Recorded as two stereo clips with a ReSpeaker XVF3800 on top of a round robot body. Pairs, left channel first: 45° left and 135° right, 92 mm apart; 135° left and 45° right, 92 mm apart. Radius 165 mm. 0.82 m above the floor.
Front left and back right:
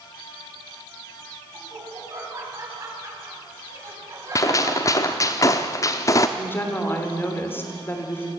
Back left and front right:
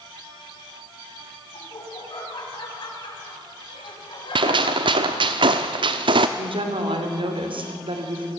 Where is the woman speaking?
20° right, 3.5 m.